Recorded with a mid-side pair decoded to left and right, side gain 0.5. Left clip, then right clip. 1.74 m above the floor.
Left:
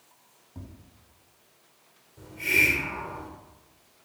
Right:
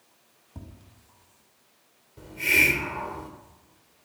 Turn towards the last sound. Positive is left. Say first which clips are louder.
# right 2 dB
turn(degrees=-45)